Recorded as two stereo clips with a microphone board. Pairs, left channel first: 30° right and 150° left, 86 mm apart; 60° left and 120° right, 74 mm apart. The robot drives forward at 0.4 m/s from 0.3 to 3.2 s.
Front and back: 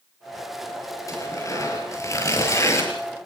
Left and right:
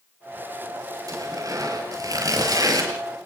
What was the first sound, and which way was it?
Tearing paper, 80° right.